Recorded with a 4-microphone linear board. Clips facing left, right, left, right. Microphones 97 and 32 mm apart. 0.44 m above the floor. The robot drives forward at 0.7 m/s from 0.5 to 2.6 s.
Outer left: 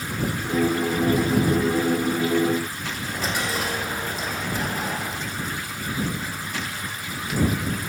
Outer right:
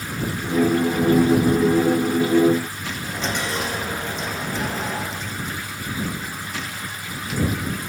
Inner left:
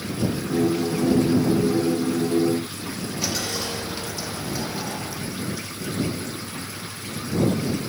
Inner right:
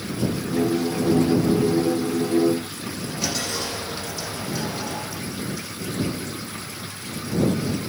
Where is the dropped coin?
5° left (ahead or behind), 6.5 m.